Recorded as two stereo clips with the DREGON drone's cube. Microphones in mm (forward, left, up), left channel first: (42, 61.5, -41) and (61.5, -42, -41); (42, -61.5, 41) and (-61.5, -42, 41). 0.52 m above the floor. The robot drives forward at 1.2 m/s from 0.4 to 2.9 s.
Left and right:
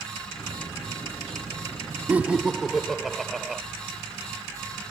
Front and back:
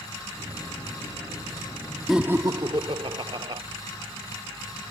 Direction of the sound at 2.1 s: 105° right.